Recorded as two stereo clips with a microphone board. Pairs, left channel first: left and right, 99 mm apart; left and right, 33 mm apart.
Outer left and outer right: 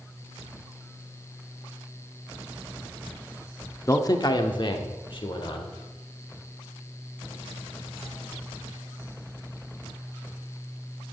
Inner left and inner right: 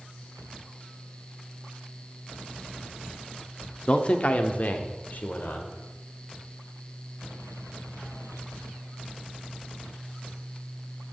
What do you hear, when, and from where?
3.9 s a man speaking: 30° left (ahead or behind), 0.7 m; by 5.7 s 55° left (ahead or behind), 1.6 m